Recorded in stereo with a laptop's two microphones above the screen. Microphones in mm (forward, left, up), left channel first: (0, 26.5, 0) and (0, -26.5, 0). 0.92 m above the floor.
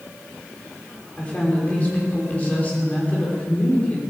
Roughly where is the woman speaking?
Left.